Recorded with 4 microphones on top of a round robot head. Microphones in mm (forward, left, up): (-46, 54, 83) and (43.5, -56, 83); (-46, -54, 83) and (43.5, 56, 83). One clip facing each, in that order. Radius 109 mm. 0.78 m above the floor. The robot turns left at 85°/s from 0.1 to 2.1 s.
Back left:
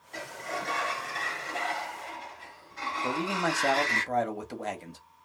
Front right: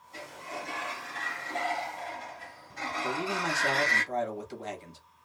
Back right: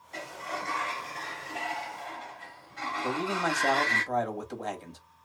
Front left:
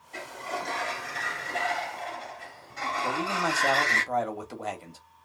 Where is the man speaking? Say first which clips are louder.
Back left 3 dB, even; 135° left, 1.2 m.